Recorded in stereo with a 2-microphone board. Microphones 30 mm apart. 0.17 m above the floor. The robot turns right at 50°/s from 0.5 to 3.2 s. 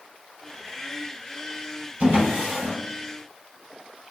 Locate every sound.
2.0 s a drawer: 45° right (ahead or behind), 1.6 m; by 2.8 s 60° right (ahead or behind), 1.6 m